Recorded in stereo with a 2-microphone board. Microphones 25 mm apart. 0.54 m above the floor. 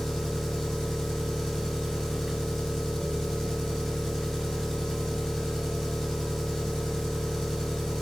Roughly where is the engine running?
Left.